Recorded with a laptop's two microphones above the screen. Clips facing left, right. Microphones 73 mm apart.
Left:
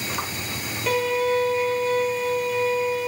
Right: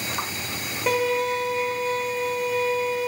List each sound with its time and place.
0.9 s a violin: 20° right (ahead or behind), 1.3 m